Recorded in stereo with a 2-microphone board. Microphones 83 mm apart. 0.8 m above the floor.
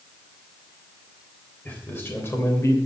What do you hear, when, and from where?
1.6 s a man speaking: 20° left (ahead or behind), 3.5 m; by 2.8 s 35° left (ahead or behind), 3 m